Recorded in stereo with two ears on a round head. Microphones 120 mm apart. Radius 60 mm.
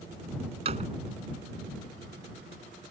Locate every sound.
0.7 s a door slam: 45° right (ahead or behind)